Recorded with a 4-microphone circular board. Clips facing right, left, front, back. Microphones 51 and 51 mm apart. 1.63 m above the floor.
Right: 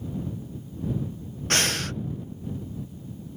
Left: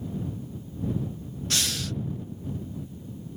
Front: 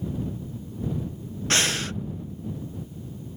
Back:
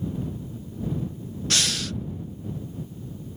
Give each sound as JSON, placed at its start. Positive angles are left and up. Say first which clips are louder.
{"t": 1.5, "sound": "breathing", "louder": "right 5 dB, front 3 dB", "azimuth_deg": -50}